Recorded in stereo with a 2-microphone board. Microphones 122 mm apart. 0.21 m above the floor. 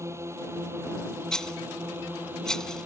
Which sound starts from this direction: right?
A drone, at 0.0 s.